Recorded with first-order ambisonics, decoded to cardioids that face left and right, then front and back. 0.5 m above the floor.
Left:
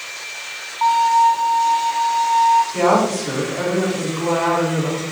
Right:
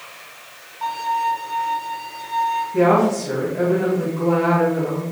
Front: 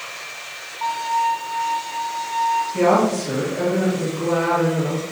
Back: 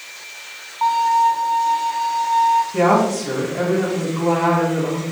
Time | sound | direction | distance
0.8 | a violin | 140° left | 2 m
2.7 | a woman speaking | 175° left | 3.5 m